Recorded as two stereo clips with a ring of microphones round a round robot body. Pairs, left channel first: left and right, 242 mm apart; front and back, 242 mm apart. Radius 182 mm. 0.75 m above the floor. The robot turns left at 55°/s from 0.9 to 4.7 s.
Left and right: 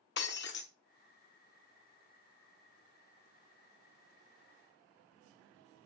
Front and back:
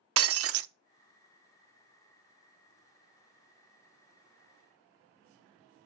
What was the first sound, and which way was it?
Breaking glass, 150° left.